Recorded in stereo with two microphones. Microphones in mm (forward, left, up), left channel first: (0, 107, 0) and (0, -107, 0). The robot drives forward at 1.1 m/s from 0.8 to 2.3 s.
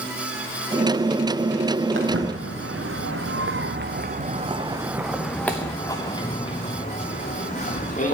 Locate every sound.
1.9 s footsteps: 70° right (ahead or behind), 2 m; by 8.1 s 35° left (ahead or behind), 3 m